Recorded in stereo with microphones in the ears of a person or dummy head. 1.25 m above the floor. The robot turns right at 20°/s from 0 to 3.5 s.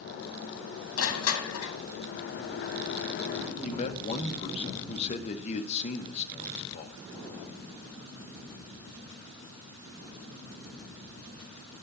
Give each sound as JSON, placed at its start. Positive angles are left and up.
{"t": 1.0, "sound": "crushing", "side_deg": 85, "distance_m": 1.4}
{"t": 3.6, "sound": "a man speaking", "side_deg": 35, "distance_m": 1.2}